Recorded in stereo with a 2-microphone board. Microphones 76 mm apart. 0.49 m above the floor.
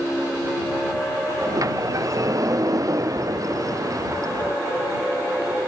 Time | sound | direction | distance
1.4 | a sliding door | 45° right (ahead or behind) | ?